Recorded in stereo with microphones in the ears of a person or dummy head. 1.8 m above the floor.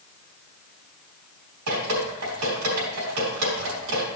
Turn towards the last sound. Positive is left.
turn(degrees=-85)